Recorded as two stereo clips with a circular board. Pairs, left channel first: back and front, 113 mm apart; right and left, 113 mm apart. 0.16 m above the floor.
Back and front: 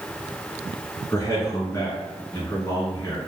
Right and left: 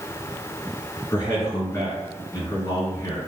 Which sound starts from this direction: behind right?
A man speaking, at 1.1 s.